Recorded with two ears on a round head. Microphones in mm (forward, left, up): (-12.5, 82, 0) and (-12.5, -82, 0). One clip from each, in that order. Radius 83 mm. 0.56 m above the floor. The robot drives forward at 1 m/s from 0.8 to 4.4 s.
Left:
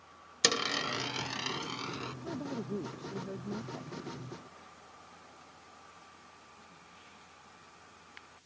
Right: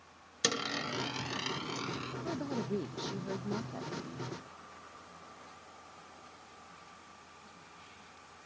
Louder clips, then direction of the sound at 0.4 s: Left 4 dB; 25° left (ahead or behind).